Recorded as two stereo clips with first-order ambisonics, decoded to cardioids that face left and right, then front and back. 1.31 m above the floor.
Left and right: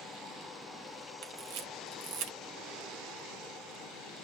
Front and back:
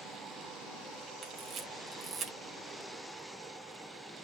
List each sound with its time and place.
1.2 s a camera shutter: 115° right, 1.5 m